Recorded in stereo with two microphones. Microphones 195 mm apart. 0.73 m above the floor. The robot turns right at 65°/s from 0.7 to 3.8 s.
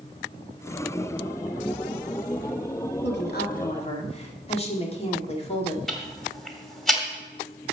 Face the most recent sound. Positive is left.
turn(degrees=0)  # may be behind; listen again after turning